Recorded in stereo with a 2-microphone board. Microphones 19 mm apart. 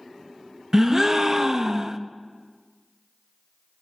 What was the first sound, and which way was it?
A gasp, 30° right (ahead or behind).